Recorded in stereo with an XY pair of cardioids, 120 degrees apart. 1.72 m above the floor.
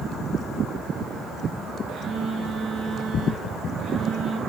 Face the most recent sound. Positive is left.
turn(degrees=-60)